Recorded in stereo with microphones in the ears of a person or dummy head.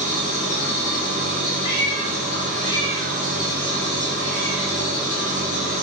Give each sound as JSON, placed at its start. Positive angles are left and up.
{"t": 0.0, "sound": "an engine running", "side_deg": 35, "distance_m": 1.0}
{"t": 1.6, "sound": "a cat meowing", "side_deg": 30, "distance_m": 1.0}